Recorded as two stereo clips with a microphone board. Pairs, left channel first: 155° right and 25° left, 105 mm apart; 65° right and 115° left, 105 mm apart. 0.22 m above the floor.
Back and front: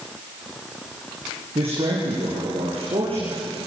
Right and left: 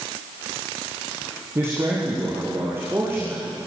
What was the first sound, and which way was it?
A man speaking, 45° left.